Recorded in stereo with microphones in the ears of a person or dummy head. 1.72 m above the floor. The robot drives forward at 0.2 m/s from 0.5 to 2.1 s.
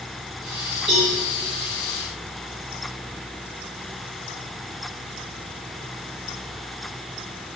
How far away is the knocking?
I don't hear knocking.